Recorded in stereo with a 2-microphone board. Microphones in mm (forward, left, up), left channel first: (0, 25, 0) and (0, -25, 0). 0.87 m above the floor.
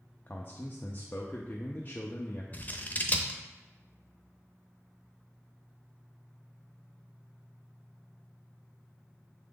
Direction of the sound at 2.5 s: 30° left (ahead or behind).